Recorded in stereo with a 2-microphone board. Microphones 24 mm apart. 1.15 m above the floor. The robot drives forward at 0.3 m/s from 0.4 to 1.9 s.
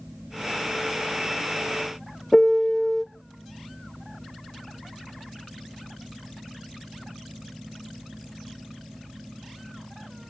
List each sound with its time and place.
2.3 s a piano: 15° left (ahead or behind), 0.5 m